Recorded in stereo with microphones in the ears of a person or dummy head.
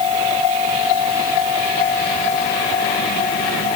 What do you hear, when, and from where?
Only background noise.